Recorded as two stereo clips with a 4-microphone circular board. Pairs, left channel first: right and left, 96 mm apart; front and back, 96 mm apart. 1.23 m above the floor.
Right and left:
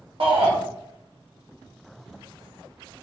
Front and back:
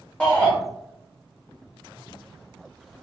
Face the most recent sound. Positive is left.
turn(degrees=75)